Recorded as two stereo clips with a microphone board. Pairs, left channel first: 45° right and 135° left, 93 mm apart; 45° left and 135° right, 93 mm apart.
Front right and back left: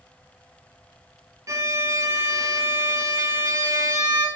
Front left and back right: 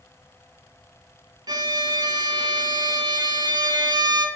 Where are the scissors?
I don't hear scissors.